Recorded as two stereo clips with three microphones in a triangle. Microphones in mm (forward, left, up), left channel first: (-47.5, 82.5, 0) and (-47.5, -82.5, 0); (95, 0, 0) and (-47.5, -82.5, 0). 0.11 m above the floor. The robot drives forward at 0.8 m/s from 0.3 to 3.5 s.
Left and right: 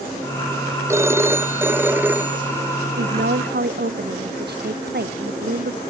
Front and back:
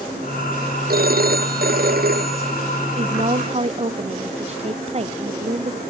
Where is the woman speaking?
100° right.